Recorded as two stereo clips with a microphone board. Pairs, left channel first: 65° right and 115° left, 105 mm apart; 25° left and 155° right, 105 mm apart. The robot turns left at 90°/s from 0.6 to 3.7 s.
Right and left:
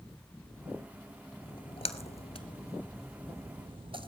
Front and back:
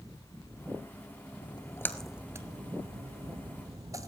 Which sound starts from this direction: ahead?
A splash, at 1.4 s.